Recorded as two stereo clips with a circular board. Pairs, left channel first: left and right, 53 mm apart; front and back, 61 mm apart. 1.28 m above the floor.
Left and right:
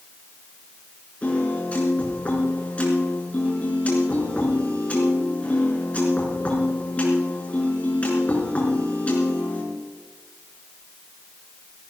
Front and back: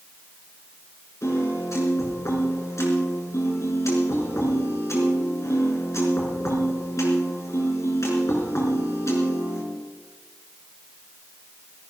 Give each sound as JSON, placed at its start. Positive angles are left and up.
{"t": 1.2, "sound": "a piano", "azimuth_deg": 30, "distance_m": 4.5}